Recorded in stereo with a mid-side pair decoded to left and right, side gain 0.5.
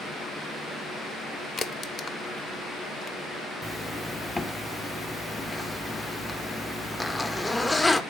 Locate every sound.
1.6 s a crack: 35° left, 0.7 m
3.6 s a zipper: 10° left, 0.5 m